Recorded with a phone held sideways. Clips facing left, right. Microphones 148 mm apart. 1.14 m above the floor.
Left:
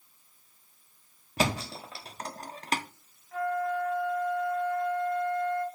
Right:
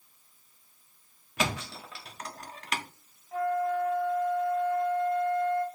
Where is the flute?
30° right (ahead or behind), 2.5 m.